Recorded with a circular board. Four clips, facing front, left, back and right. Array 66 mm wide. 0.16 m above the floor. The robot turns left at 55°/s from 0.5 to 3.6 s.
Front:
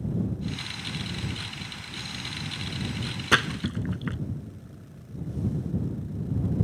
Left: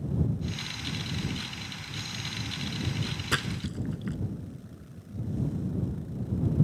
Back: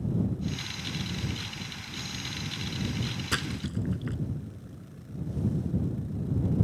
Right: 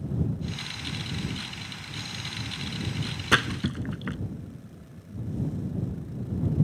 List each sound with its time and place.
3.3 s a splash: 40° right; by 4.2 s 55° right